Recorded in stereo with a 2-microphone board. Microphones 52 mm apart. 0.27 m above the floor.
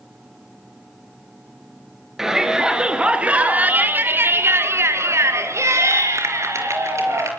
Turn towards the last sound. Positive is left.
turn(degrees=-65)  # may be behind; listen again after turning